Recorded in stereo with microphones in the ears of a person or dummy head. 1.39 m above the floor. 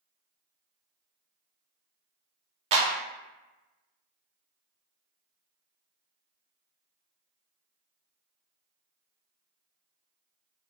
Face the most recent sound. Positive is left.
turn(degrees=-30)  # may be behind; listen again after turning